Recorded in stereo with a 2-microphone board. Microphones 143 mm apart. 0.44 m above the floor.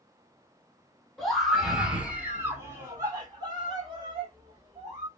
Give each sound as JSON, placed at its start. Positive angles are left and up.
{"t": 1.2, "sound": "a scream", "side_deg": 0, "distance_m": 1.7}